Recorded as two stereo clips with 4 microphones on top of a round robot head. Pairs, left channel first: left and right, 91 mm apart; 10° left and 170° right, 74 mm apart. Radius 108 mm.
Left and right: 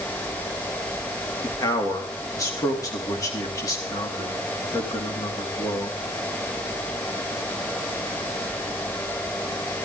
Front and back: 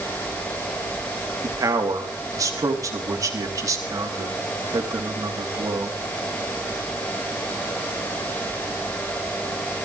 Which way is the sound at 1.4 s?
145° left.